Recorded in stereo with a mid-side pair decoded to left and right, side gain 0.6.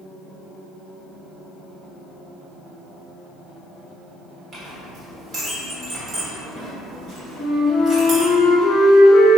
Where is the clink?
40° right, 1.8 m.